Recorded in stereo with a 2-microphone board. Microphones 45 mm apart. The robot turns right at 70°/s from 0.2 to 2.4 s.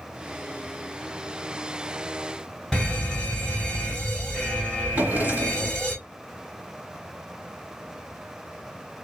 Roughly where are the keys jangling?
No keys jangling in this recording.